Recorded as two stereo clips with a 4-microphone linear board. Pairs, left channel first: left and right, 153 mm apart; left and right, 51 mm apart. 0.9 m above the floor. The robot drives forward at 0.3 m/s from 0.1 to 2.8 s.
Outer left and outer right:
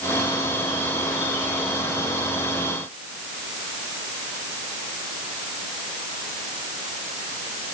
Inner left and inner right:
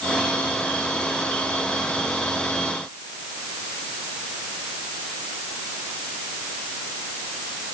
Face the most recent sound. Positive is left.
No sound to turn to.